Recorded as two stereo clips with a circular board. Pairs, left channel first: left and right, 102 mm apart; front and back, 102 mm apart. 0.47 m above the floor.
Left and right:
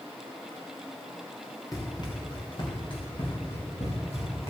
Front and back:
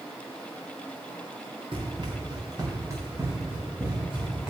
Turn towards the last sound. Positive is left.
turn(degrees=100)